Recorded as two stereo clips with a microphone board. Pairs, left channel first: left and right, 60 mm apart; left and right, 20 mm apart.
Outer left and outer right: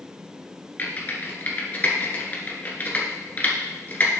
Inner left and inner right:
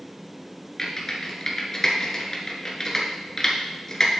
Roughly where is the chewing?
No chewing in this recording.